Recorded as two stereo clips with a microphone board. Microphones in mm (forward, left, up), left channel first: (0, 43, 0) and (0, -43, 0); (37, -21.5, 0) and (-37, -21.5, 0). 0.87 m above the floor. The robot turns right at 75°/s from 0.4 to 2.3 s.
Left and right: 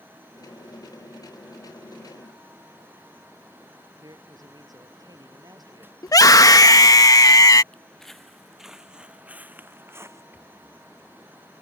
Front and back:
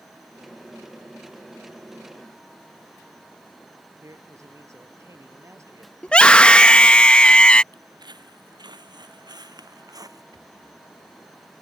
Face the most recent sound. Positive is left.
turn(degrees=-160)